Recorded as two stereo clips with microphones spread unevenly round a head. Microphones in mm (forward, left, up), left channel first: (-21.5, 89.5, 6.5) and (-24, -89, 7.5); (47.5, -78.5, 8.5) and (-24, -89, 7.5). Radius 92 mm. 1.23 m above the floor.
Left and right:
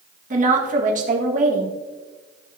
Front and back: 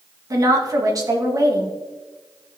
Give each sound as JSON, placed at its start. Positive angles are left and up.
{"t": 0.3, "sound": "a woman speaking", "azimuth_deg": -135, "distance_m": 1.7}